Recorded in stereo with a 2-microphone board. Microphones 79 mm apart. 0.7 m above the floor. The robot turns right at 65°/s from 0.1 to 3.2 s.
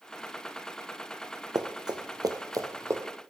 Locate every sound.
1.6 s running footsteps: 60° right (ahead or behind), 1.2 m; by 3.0 s 35° right (ahead or behind), 1.5 m